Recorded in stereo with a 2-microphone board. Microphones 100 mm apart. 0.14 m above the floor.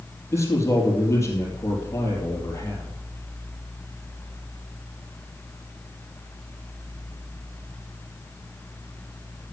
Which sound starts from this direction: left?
A man speaking, at 0.3 s.